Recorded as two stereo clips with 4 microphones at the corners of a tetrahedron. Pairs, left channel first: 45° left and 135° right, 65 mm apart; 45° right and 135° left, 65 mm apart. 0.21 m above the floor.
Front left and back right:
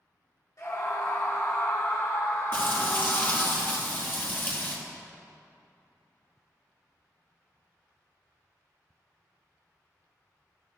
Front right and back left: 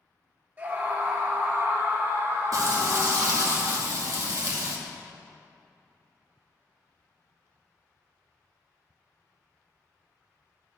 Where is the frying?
100° left, 2.5 m.